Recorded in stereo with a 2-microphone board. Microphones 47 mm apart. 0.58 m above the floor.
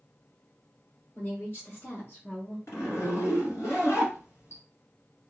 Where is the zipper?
80° left, 1.7 m.